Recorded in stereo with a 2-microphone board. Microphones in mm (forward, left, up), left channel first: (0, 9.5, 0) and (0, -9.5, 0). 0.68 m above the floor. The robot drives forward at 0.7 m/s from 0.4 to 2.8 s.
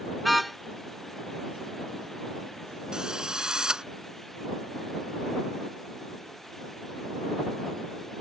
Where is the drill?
35° right (ahead or behind).